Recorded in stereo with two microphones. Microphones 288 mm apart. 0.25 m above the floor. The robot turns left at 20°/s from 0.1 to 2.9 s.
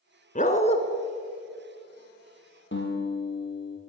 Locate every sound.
0.3 s a dog barking: 30° left (ahead or behind), 0.9 m; by 0.8 s 20° left (ahead or behind), 0.9 m
2.7 s a guitar: 40° left (ahead or behind), 2.5 m; by 3.8 s 35° left (ahead or behind), 2.5 m